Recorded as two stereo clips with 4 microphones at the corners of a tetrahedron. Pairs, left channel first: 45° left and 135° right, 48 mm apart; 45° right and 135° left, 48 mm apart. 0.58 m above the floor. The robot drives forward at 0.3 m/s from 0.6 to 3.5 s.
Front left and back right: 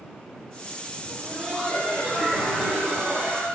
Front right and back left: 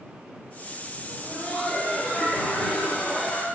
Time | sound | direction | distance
1.1 | laughter | 40° right | 1.2 m